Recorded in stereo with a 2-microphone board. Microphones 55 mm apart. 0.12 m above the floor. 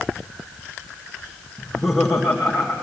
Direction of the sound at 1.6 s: Centre (ahead or behind).